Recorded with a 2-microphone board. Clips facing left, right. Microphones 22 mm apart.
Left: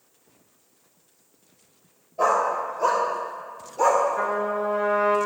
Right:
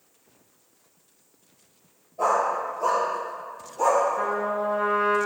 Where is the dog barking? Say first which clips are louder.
Left 1 dB; 50° left (ahead or behind), 3 m; by 4.0 s 45° left (ahead or behind), 1.9 m.